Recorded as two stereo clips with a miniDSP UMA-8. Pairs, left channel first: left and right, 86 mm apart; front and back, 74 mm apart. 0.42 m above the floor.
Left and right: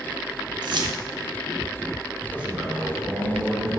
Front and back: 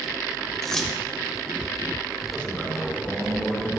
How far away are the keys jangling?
About 1.0 m.